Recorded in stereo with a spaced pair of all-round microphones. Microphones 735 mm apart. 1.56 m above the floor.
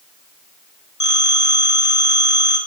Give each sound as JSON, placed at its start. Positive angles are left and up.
{"t": 1.0, "sound": "a phone ringing", "side_deg": 25, "distance_m": 3.0}